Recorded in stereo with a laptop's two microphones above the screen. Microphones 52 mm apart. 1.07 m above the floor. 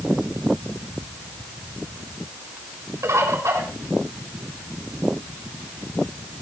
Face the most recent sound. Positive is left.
turn(degrees=-80)